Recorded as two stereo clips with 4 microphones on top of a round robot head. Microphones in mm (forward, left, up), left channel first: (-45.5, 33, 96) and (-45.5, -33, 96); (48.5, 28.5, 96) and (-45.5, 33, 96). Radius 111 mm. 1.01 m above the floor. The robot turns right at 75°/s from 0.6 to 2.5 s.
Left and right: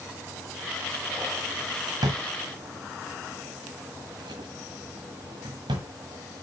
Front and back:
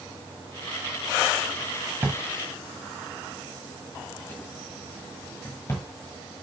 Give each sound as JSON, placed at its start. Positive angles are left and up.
{"t": 2.0, "sound": "a drawer", "azimuth_deg": -110, "distance_m": 1.4}